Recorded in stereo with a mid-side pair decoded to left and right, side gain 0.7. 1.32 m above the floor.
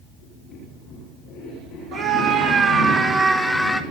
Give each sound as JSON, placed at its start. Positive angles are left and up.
{"t": 1.9, "sound": "a scream", "azimuth_deg": -65, "distance_m": 1.3}